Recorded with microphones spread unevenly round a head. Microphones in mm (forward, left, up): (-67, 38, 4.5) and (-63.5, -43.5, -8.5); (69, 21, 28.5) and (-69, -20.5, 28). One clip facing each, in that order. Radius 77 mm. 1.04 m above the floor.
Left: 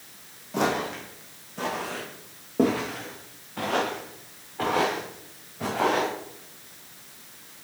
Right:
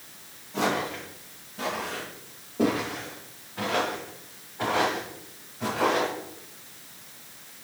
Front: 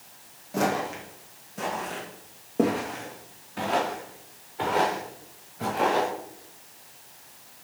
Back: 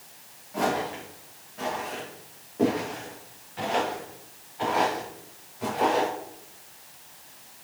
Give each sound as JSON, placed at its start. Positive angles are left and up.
{"t": 0.5, "sound": "footsteps", "azimuth_deg": 60, "distance_m": 2.5}